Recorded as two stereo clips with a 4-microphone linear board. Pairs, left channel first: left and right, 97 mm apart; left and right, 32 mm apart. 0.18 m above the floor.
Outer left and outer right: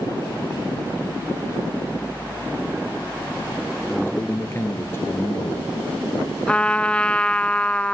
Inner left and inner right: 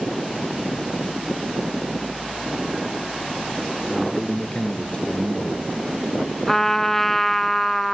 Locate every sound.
3.9 s a man speaking: 25° left (ahead or behind), 3 m
6.5 s a trumpet: 10° left (ahead or behind), 0.6 m